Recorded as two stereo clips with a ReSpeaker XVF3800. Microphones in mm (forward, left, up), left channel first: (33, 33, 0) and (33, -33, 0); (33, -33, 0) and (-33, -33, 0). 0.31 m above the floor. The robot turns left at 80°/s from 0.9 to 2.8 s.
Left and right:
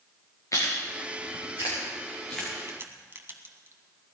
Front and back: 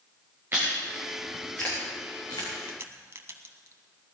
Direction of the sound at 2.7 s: 125° right.